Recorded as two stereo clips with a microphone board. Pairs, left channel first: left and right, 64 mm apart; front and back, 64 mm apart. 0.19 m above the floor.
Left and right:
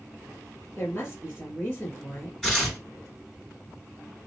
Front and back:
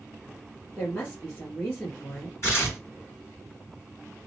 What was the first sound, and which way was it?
A woman speaking, 40° left.